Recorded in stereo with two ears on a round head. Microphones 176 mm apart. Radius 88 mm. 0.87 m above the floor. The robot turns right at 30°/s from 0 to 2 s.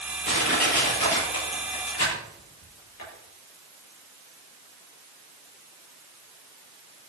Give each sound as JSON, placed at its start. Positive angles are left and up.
{"t": 0.2, "sound": "crushing", "side_deg": 30, "distance_m": 9.5}